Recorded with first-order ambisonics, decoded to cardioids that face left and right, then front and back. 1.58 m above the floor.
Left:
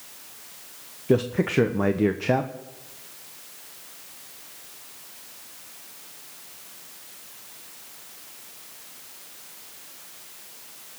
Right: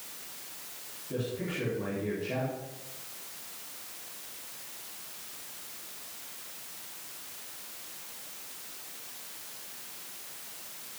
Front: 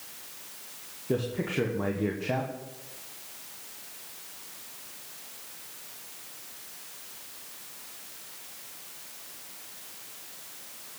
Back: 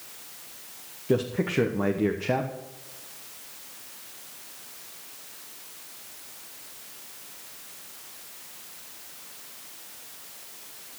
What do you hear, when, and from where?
1.1 s a man speaking: 105° left, 1.0 m